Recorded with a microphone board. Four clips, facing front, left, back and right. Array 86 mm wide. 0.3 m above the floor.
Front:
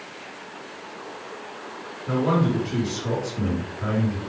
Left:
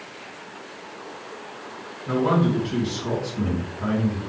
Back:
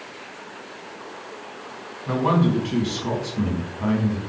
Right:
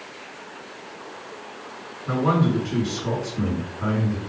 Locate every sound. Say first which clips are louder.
2.1 s a man speaking: even, back 2 dB; 175° left, 2.5 m